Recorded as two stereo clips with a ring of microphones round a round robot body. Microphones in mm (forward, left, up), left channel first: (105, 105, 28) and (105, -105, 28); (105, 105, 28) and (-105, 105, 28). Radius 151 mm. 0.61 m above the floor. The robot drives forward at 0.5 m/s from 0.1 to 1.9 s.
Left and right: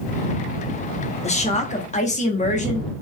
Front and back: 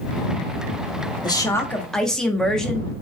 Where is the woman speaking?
60° left, 1.1 m; by 2.9 s 85° left, 1.0 m.